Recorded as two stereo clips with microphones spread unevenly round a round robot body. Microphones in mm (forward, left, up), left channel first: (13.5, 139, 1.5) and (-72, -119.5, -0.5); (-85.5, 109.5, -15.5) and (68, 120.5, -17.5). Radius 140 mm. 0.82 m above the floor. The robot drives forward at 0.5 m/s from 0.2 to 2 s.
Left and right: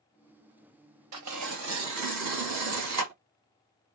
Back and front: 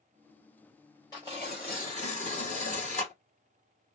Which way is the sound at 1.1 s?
100° right.